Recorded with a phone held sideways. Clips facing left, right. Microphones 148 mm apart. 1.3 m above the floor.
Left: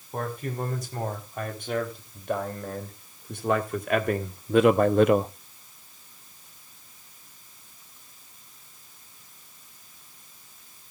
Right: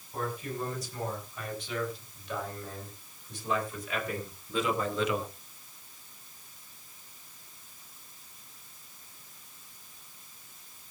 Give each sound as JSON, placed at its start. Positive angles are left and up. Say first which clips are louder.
{"t": 0.1, "sound": "a man speaking", "louder": "left 3 dB", "side_deg": 60, "distance_m": 5.5}